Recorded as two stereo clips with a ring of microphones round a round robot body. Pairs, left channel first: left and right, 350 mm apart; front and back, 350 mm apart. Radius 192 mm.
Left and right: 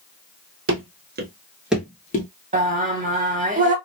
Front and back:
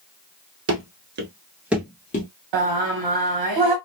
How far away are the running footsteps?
About 0.8 m.